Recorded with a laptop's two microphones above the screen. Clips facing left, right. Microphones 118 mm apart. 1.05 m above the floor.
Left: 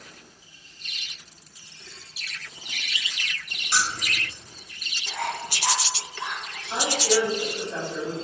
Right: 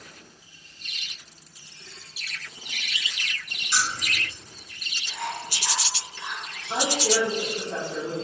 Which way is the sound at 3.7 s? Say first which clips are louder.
Left 1 dB; 55° left (ahead or behind).